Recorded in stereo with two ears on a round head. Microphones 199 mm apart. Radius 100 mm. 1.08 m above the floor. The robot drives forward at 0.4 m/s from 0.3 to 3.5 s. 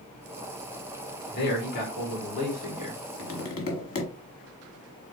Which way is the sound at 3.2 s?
75° left (ahead or behind).